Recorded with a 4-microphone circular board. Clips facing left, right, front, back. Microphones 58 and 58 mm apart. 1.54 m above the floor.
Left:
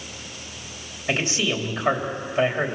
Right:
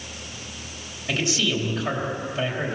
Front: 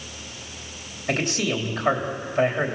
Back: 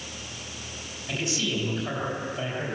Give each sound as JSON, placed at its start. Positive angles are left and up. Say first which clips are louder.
{"t": 1.1, "sound": "a man speaking", "louder": "left 1 dB, front 5 dB", "azimuth_deg": 25, "distance_m": 3.5}